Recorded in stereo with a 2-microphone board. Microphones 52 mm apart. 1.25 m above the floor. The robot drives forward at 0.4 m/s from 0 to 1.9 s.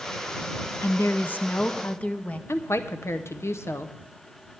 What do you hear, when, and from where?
0.8 s a woman speaking: 50° left (ahead or behind), 0.5 m; by 2.4 s 25° left (ahead or behind), 0.8 m
2.5 s a woman speaking: 55° left (ahead or behind), 0.6 m